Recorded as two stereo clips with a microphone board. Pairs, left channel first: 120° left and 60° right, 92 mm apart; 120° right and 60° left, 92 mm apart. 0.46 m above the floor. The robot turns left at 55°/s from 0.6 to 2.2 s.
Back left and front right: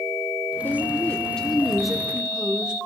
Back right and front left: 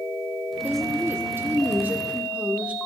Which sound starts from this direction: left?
A woman speaking, at 0.6 s.